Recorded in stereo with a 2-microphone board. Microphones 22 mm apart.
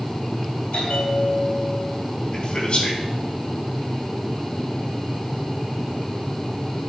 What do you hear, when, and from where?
0.7 s a bell: 75° left (ahead or behind), 3.5 m
2.3 s a man speaking: 45° left (ahead or behind), 4.5 m